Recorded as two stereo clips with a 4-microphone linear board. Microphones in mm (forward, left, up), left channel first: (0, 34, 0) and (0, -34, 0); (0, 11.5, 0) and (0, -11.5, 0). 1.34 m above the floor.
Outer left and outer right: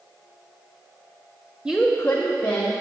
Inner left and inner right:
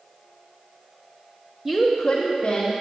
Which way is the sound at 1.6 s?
15° right (ahead or behind).